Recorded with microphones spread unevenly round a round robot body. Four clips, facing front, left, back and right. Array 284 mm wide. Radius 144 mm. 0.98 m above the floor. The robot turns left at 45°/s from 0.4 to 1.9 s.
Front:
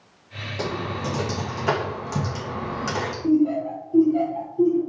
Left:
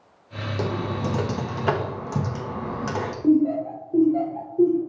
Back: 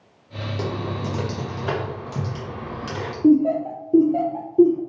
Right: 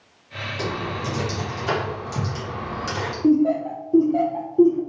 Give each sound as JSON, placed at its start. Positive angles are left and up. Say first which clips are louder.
{"t": 0.6, "sound": "typing on a keyboard", "louder": "left 1 dB, front 1 dB", "azimuth_deg": 125, "distance_m": 1.2}
{"t": 3.2, "sound": "laughter", "louder": "right 1 dB, back 4 dB", "azimuth_deg": -165, "distance_m": 0.7}